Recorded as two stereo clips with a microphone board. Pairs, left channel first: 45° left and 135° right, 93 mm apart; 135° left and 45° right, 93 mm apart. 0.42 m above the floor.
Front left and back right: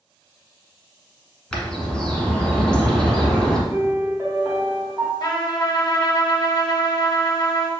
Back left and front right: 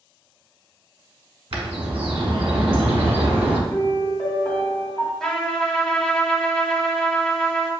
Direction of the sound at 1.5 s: 35° right.